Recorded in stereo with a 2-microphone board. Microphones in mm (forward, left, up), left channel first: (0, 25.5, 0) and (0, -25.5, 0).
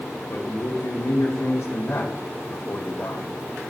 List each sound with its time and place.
0.3 s a man speaking: 60° left (ahead or behind), 1.3 m